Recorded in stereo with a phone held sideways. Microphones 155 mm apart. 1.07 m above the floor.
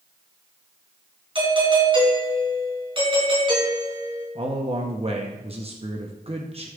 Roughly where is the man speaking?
Right.